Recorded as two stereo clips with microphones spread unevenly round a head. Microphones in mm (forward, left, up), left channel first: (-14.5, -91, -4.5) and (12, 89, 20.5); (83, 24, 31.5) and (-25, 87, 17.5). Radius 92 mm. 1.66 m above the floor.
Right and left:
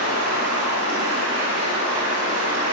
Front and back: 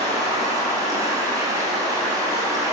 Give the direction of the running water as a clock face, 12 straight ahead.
9 o'clock.